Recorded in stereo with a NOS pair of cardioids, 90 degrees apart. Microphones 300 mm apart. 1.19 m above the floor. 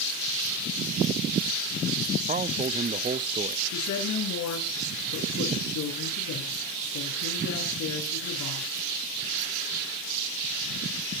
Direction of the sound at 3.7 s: 70° left.